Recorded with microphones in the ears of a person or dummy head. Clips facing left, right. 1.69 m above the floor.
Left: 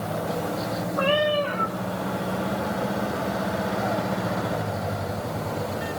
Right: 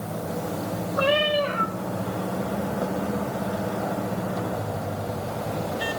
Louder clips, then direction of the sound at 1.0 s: Even; 25° right (ahead or behind).